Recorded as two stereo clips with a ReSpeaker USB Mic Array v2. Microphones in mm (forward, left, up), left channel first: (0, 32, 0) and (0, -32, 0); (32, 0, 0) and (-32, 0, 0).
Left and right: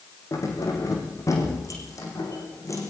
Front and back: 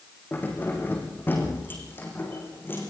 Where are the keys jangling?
60° left, 5.5 m; by 2.9 s 55° left, 7 m.